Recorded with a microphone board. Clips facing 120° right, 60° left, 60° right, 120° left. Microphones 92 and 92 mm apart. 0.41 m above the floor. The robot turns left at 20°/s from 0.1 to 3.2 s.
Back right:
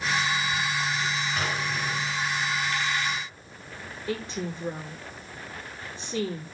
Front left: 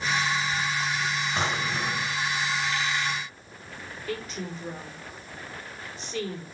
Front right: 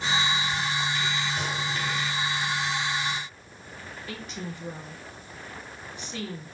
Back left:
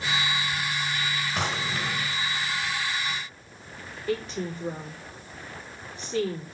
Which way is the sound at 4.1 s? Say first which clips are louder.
Back right 3 dB, back left 9 dB; 175° left.